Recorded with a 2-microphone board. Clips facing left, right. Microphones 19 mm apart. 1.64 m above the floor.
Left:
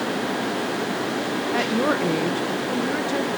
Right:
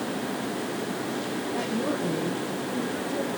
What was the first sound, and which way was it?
A woman speaking, 60° left (ahead or behind).